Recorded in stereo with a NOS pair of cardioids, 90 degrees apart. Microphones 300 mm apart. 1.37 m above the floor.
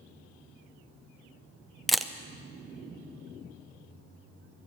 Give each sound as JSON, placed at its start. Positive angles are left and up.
{"t": 1.9, "sound": "a camera shutter", "azimuth_deg": 0, "distance_m": 0.6}